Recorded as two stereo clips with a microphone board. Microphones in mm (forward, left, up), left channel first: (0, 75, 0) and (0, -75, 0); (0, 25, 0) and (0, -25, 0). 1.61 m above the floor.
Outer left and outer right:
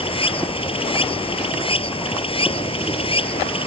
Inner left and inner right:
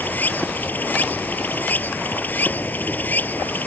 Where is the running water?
35° left (ahead or behind).